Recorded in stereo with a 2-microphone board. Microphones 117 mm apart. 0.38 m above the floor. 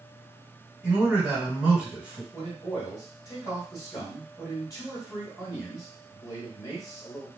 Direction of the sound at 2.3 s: 30° left (ahead or behind).